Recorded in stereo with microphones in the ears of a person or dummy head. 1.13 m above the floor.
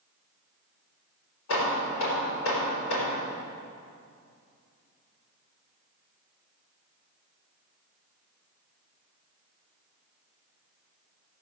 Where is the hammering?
80° left, 4 m.